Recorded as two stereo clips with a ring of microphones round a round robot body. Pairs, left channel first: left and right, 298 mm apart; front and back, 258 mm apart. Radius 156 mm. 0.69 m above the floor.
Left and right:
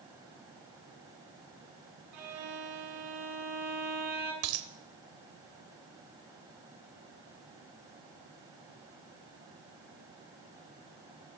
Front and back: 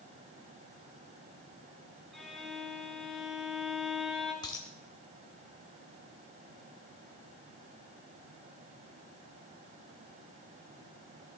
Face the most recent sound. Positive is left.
turn(degrees=-75)